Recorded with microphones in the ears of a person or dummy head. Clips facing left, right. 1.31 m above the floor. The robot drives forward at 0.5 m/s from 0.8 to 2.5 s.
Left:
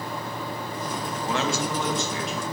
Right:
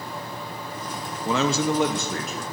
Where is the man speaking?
70° right (ahead or behind), 0.5 m; by 2.4 s 35° right (ahead or behind), 0.9 m.